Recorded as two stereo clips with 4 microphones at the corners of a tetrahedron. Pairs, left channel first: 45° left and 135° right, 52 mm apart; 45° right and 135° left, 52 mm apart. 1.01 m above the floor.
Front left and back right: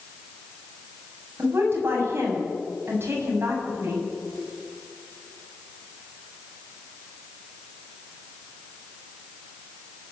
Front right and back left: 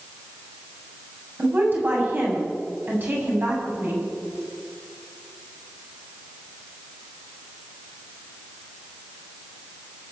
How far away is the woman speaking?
About 7.5 m.